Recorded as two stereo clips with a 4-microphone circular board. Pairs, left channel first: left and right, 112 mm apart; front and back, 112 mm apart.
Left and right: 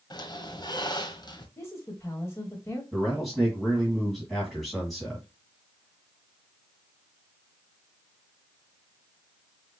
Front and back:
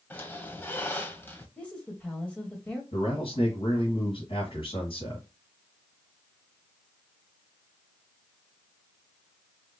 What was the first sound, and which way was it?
A squeak, 65° left.